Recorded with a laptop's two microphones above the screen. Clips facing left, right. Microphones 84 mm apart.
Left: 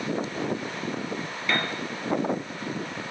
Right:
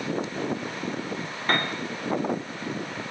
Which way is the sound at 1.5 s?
45° right (ahead or behind).